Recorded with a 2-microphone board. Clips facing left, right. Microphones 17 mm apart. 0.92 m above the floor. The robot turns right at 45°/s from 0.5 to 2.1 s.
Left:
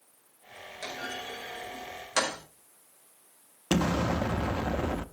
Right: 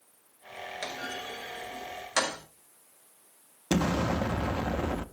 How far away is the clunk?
About 4.5 m.